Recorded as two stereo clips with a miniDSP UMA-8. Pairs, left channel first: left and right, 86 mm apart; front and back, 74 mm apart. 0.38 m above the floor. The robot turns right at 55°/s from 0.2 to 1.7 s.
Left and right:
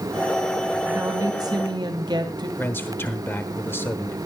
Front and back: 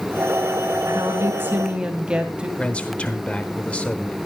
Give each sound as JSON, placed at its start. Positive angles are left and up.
{"t": 0.9, "sound": "a woman speaking", "azimuth_deg": -150, "distance_m": 2.5}
{"t": 2.6, "sound": "a man speaking", "azimuth_deg": 60, "distance_m": 1.0}